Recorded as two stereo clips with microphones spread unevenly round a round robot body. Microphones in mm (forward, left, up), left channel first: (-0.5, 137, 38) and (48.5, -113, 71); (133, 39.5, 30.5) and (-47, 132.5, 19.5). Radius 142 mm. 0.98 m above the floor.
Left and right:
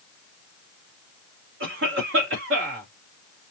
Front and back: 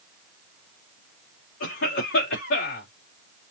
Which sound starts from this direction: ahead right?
A cough, at 1.6 s.